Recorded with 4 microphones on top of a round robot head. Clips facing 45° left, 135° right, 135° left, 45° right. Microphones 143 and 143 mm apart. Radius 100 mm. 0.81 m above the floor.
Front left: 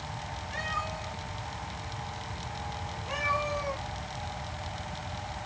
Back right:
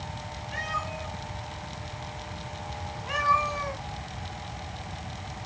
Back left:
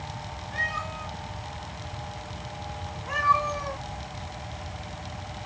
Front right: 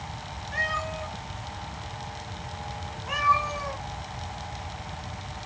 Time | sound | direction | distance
0.5 | a cat meowing | 85° right | 4 m